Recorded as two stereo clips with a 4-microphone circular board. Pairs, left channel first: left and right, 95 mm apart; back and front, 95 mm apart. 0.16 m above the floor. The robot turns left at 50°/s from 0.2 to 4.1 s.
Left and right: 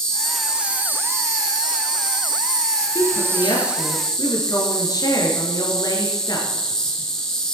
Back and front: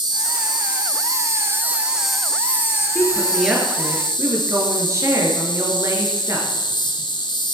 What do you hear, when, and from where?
0.0 s an insect: 5° left, 1.9 m; by 7.5 s 170° left, 1.9 m
3.0 s a woman speaking: 110° left, 3 m; by 6.5 s 50° left, 3 m